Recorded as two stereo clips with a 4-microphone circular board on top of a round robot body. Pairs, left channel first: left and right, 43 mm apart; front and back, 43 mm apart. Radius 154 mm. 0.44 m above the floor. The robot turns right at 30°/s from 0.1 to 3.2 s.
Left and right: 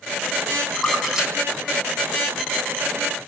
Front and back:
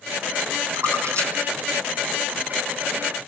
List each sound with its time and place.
0.8 s a splash: 175° left, 10 m; by 2.5 s 130° right, 10 m